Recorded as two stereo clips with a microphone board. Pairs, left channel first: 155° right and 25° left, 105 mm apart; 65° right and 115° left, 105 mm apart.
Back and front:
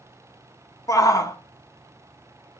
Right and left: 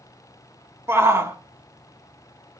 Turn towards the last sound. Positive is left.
turn(degrees=165)